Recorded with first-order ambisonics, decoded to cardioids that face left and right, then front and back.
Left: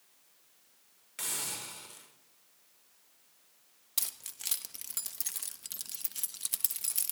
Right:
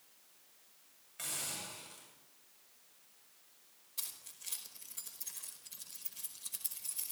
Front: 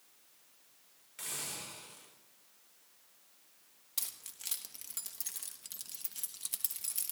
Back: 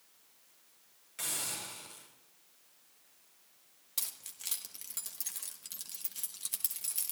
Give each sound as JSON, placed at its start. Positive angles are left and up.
{"t": 1.2, "sound": "a hiss", "azimuth_deg": 105, "distance_m": 5.5}
{"t": 4.0, "sound": "keys jangling", "azimuth_deg": 95, "distance_m": 1.3}